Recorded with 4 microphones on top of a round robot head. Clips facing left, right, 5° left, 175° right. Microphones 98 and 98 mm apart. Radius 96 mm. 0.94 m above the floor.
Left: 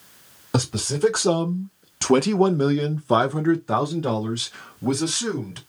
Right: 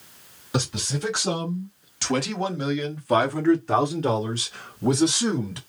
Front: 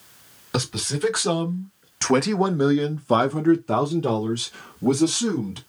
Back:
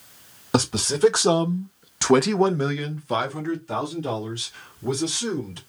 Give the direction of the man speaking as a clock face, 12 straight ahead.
8 o'clock.